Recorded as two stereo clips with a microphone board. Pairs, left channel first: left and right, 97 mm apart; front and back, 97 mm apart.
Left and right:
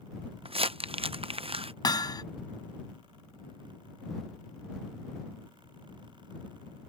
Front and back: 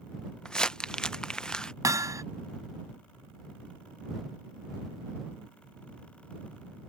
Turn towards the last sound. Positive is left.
turn(degrees=125)